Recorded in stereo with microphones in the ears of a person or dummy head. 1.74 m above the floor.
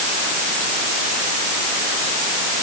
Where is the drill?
I don't hear a drill.